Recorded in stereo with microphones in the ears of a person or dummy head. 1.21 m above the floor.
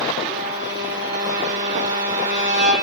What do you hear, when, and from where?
0.3 s a violin: 40° right (ahead or behind), 9 m